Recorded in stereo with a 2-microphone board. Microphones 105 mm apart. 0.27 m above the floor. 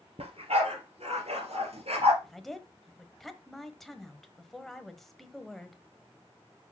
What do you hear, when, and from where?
0.2 s a dog barking: 70° right (ahead or behind), 2.5 m; by 2.1 s 75° right (ahead or behind), 2.5 m
2.2 s a woman speaking: centre (ahead or behind), 1.1 m